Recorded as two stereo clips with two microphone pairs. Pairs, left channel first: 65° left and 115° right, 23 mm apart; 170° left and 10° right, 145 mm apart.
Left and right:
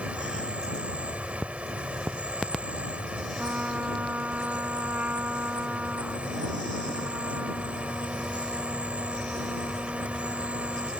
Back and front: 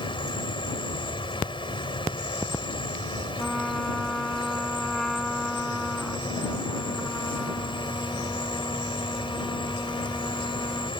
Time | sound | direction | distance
0.0 | an insect | 135° right | ?
3.4 | a trumpet | 105° right | ?